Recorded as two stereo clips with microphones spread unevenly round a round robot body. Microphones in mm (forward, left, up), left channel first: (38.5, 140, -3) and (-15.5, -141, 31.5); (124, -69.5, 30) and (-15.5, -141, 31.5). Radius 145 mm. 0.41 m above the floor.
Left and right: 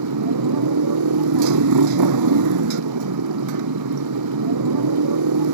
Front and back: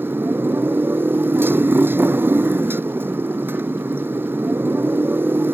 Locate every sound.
0.0 s a motorcycle: 75° right